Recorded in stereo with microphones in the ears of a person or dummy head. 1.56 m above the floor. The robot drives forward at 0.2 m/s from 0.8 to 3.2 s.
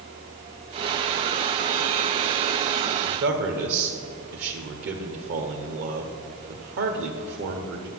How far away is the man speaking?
About 0.9 m.